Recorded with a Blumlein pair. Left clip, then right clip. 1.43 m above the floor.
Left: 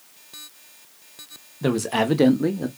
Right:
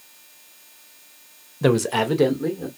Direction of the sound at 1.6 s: 20° right.